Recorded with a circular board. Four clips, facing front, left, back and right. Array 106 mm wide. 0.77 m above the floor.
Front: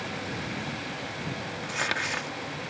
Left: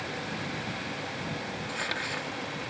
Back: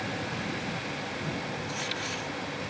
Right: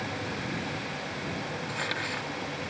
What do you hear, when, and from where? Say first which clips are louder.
1.6 s crumpling: right 1 dB, front 3 dB; straight ahead